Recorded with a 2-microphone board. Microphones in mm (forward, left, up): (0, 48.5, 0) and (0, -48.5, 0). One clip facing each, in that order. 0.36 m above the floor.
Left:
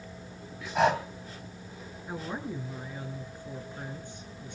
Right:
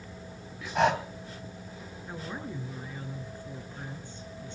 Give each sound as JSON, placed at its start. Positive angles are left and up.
{"t": 0.8, "sound": "breathing", "side_deg": 0, "distance_m": 2.5}
{"t": 2.1, "sound": "a woman speaking", "side_deg": 15, "distance_m": 5.5}